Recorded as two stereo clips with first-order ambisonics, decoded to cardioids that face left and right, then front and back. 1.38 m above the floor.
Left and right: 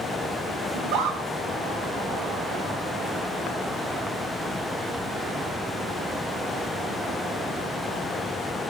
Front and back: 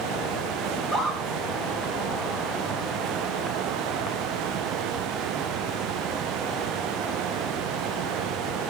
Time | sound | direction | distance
0.7 | a scream | 80° right | 5.5 m